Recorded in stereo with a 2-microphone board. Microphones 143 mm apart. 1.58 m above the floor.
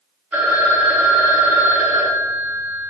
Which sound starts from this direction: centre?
A phone ringing, at 0.3 s.